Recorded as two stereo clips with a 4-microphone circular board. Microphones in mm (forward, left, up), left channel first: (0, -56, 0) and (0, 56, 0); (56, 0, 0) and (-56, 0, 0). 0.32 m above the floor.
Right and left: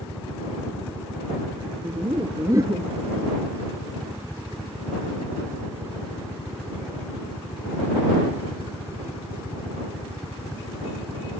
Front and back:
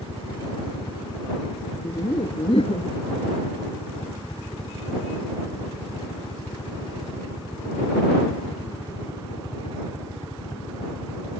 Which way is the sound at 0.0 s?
15° right.